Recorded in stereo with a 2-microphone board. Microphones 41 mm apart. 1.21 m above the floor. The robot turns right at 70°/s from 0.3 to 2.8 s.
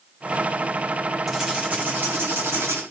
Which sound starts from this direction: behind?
Writing, at 1.3 s.